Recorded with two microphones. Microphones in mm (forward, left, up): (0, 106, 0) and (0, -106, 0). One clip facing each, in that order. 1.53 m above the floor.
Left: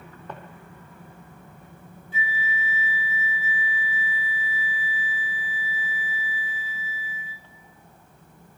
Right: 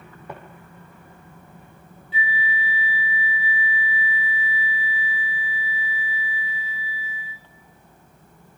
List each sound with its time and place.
0.3 s footsteps: 10° right (ahead or behind), 3.5 m
2.1 s a flute: 45° left (ahead or behind), 2.5 m